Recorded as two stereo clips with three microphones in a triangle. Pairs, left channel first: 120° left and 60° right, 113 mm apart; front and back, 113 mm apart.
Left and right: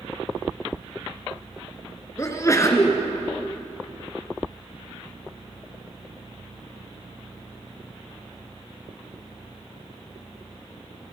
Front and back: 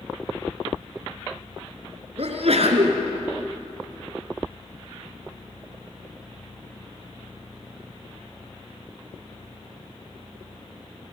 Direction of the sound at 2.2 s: Straight behind.